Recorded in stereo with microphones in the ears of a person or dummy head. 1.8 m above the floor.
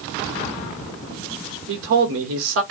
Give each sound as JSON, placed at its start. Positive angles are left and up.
{"t": 1.7, "sound": "a man speaking", "side_deg": -65, "distance_m": 1.4}